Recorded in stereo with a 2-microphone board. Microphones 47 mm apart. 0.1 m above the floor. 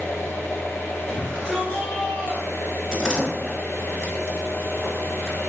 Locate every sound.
0.0 s an engine running: 55° left (ahead or behind), 0.8 m
1.1 s a shout: 20° left (ahead or behind), 1.5 m
2.9 s a door slam: 15° right (ahead or behind), 1.0 m